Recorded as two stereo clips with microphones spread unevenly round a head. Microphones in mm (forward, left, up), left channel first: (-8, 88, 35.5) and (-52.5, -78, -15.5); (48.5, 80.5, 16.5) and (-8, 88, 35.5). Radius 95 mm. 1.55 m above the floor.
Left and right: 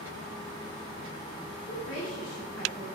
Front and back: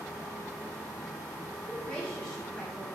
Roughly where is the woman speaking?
Left.